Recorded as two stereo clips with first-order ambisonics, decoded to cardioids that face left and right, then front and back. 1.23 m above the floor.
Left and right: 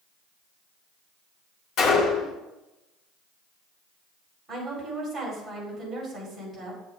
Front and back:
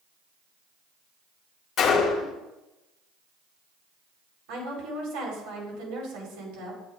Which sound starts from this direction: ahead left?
A gunshot, at 1.8 s.